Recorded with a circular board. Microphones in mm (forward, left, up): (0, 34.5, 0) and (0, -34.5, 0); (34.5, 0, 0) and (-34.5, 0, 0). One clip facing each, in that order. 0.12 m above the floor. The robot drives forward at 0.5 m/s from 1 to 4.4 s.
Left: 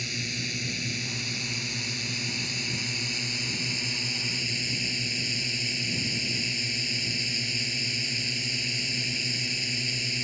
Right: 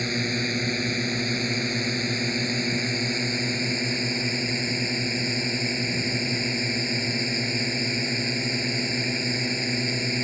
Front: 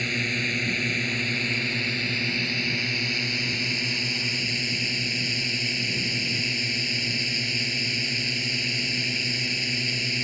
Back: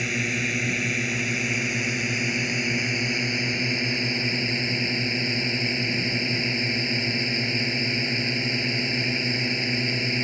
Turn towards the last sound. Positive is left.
turn(degrees=-125)